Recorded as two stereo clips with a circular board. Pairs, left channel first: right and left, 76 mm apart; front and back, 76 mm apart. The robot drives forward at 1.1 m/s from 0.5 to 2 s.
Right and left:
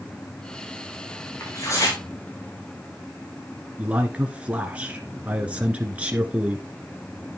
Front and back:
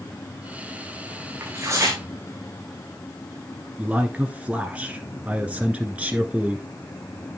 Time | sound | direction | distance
1.4 | tearing paper | 125° right | 5 m
3.8 | a man speaking | 135° left | 1.2 m